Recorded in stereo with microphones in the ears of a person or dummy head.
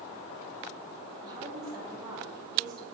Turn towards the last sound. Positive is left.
turn(degrees=-25)  # may be behind; listen again after turning